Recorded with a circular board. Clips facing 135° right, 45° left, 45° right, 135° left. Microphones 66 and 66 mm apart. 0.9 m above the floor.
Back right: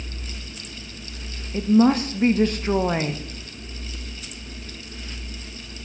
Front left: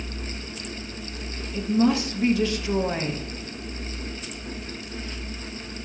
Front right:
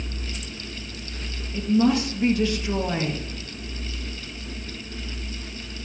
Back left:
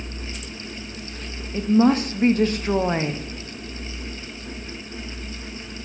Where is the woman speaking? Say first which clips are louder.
Back right 4 dB, back left 3 dB; straight behind, 0.7 m.